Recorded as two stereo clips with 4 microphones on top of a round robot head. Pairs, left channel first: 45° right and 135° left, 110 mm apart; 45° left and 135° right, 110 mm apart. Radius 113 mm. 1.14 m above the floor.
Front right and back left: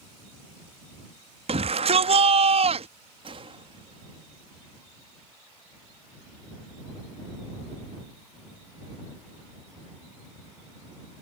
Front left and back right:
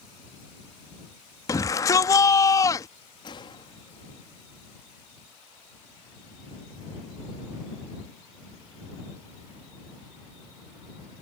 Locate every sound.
1.5 s a shout: 105° left
3.2 s a gunshot: 95° left